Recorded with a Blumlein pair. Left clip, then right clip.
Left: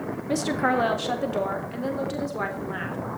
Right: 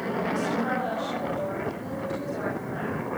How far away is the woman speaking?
About 1.5 m.